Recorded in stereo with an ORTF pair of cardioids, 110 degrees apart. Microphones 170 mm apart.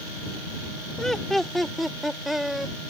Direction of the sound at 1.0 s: 5° left.